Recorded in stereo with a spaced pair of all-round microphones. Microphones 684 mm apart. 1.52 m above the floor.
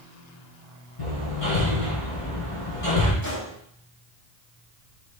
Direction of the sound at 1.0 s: 55° left (ahead or behind).